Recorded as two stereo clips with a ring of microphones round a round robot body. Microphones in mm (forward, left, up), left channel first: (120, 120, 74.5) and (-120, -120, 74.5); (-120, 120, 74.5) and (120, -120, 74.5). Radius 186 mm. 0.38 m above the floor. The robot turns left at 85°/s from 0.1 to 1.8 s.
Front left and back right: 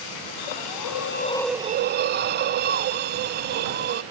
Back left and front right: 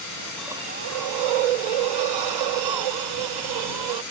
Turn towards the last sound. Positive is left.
turn(degrees=-70)